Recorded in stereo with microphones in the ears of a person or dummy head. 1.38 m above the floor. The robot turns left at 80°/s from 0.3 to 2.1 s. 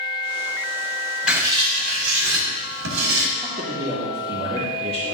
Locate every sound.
1.3 s writing: 5° right, 2.0 m; by 3.3 s 70° right, 2.0 m
3.4 s a man speaking: 30° right (ahead or behind), 1.7 m